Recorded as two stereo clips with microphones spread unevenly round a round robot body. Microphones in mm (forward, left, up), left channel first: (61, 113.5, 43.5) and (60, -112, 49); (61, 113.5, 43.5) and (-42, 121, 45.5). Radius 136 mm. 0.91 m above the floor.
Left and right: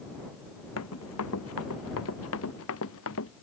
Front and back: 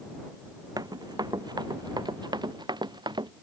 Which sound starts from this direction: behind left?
Running footsteps, at 0.8 s.